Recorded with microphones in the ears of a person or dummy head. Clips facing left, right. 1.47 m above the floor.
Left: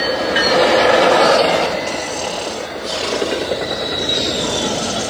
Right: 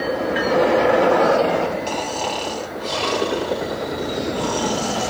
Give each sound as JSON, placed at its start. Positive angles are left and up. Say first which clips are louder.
{"t": 1.9, "sound": "snoring", "louder": "left 2 dB", "side_deg": 5, "distance_m": 3.5}